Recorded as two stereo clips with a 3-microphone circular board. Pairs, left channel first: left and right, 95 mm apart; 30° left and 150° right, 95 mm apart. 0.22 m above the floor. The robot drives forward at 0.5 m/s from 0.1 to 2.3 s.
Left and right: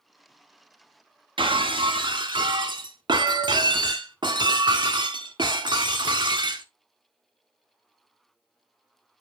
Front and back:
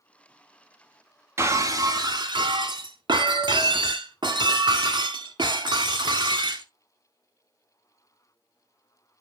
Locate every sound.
1.4 s breaking glass: 90° right, 1.0 m; by 6.7 s 120° right, 1.1 m